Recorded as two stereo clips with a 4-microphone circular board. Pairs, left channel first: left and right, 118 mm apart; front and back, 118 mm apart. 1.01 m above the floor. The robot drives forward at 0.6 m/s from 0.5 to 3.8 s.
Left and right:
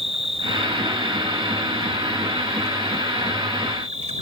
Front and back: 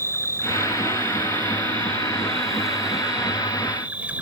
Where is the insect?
65° right; by 4.2 s 105° right.